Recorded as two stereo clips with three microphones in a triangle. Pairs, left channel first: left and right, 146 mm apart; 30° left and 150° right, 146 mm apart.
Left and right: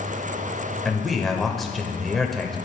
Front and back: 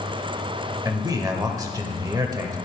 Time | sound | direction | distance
0.8 | a man speaking | straight behind | 1.1 m